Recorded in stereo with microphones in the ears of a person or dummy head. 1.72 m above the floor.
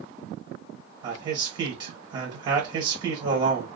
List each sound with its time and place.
1.0 s a man speaking: 25° right (ahead or behind), 1.2 m